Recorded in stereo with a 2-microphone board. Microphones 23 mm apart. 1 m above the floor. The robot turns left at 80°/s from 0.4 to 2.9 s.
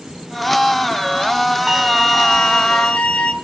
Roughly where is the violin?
Behind.